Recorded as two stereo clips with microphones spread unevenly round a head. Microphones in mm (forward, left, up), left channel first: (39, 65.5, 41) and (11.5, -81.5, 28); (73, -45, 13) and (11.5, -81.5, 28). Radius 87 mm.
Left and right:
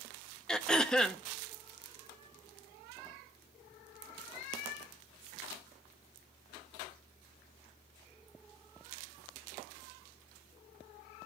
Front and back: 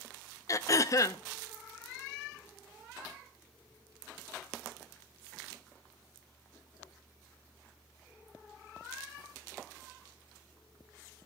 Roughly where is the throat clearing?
Ahead.